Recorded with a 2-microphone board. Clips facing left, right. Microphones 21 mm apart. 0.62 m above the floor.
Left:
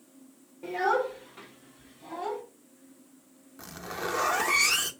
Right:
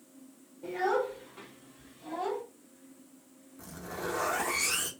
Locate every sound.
0.6 s a child speaking: 45° left (ahead or behind), 1.1 m; by 2.4 s 10° right (ahead or behind), 1.8 m
3.6 s a zipper: 45° left (ahead or behind), 0.6 m